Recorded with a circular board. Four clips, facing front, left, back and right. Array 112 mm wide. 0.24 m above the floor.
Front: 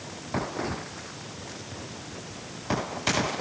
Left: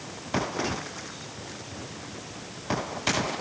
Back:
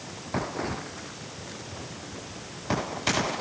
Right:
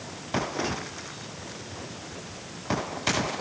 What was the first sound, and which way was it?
Only background noise.